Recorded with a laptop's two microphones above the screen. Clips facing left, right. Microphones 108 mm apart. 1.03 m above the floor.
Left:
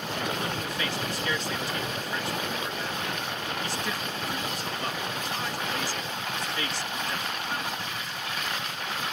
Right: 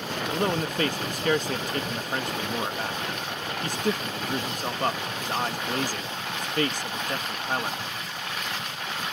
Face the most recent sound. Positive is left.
turn(degrees=-45)  # may be behind; listen again after turning